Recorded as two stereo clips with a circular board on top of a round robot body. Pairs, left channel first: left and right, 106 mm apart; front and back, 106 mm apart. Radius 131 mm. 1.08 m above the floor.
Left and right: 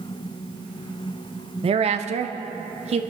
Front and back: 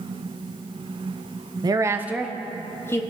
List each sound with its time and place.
1.6 s a woman speaking: 125° right, 0.9 m; by 3.0 s 65° right, 1.3 m